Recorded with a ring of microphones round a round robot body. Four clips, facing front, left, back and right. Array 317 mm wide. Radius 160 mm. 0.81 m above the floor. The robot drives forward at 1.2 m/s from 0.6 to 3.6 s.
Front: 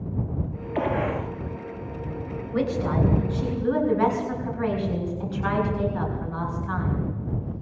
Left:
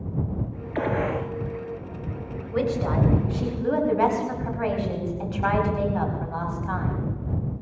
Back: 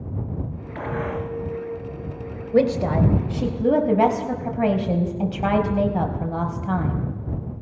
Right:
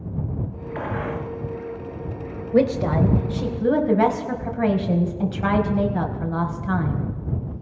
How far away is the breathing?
No breathing in this recording.